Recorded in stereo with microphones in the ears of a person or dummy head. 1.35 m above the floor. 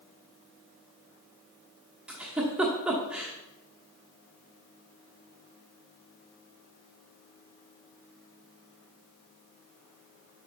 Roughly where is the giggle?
Centre.